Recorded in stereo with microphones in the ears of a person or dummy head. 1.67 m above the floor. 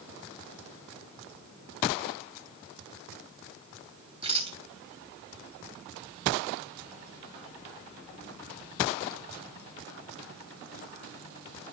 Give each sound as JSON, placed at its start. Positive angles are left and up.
{"t": 4.2, "sound": "a rattle", "side_deg": -25, "distance_m": 1.9}